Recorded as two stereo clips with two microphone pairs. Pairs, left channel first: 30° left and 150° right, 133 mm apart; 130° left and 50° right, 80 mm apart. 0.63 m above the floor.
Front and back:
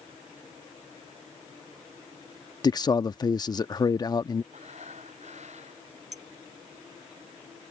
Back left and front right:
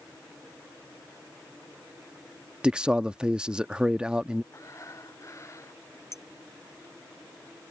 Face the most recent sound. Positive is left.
turn(degrees=180)